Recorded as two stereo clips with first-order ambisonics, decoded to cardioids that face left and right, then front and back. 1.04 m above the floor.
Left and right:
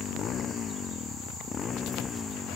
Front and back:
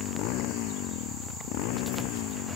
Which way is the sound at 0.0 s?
30° left.